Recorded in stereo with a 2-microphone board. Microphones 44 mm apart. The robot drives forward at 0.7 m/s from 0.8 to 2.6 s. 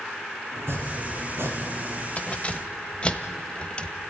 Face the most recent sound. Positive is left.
turn(degrees=25)  # may be behind; listen again after turning